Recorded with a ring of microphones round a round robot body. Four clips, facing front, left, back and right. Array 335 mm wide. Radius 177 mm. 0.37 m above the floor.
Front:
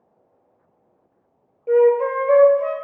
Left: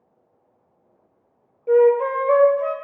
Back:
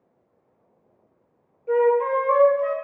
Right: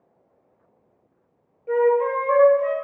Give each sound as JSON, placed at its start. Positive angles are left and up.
{"t": 1.7, "sound": "a flute", "azimuth_deg": 40, "distance_m": 1.2}